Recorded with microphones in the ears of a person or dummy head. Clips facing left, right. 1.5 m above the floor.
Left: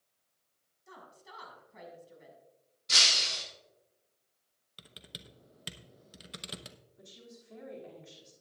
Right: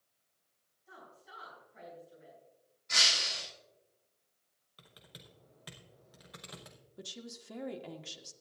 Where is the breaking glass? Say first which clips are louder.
Left 1 dB; 55° left (ahead or behind), 6 m.